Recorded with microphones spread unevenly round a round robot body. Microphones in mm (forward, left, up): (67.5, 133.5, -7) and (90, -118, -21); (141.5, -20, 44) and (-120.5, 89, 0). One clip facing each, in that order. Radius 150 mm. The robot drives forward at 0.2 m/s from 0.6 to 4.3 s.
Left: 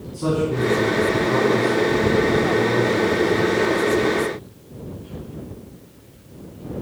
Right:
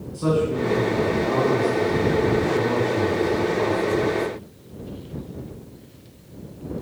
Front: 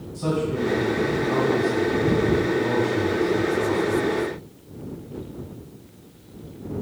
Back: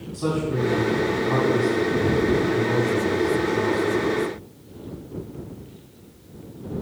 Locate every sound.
0.1 s a man speaking: 145° left, 3.5 m; by 4.1 s 150° left, 4 m